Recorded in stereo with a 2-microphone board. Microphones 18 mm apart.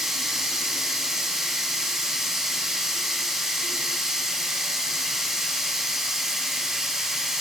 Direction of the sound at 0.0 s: 25° right (ahead or behind).